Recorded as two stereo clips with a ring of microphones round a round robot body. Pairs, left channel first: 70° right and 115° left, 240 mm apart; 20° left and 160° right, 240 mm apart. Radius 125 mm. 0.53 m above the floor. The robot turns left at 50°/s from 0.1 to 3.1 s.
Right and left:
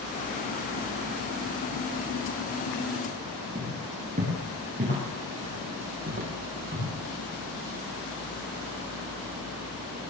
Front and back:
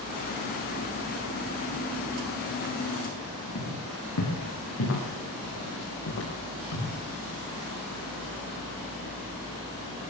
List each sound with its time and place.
3.5 s footsteps: 50° left, 9.5 m; by 6.9 s 60° left, 11 m